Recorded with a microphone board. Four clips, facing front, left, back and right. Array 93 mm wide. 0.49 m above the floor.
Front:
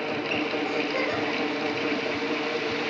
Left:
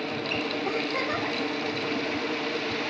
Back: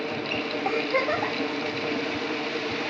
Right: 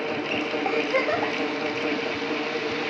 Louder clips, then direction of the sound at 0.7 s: Right 7 dB, back 2 dB; 125° right.